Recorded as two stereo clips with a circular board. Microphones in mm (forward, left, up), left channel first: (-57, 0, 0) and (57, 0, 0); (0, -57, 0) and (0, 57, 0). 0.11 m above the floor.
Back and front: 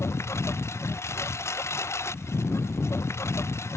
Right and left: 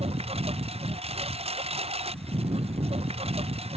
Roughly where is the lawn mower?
Behind left.